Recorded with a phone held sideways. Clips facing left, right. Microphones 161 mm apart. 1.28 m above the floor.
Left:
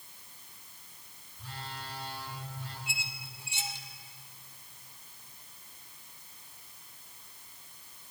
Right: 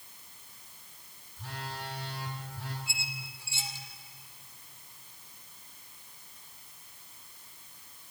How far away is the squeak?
About 1.5 m.